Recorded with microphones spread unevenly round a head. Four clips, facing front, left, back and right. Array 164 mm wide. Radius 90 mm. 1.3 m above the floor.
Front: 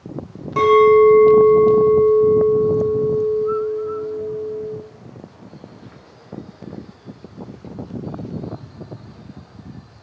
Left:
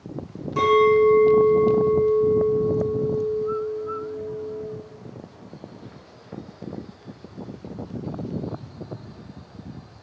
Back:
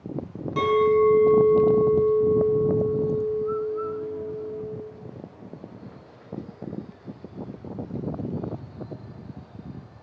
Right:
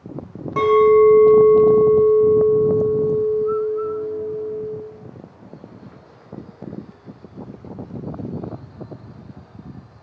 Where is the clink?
55° right, 1.0 m.